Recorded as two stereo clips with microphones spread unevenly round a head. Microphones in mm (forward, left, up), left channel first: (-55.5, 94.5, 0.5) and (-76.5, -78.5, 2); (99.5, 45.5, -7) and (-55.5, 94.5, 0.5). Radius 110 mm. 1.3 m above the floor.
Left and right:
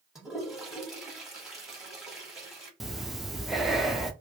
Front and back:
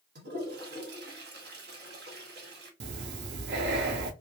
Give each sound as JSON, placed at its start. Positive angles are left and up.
{"t": 0.1, "sound": "a toilet flushing", "azimuth_deg": 175, "distance_m": 1.1}
{"t": 2.8, "sound": "breathing", "azimuth_deg": 175, "distance_m": 0.5}